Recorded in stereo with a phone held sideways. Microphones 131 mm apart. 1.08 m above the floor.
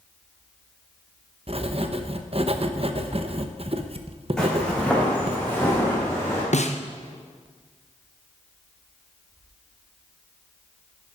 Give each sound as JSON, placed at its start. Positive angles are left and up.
{"t": 1.5, "sound": "writing", "side_deg": -45, "distance_m": 0.9}
{"t": 4.4, "sound": "footsteps", "side_deg": 5, "distance_m": 4.5}
{"t": 6.5, "sound": "a snare drum", "side_deg": 60, "distance_m": 0.9}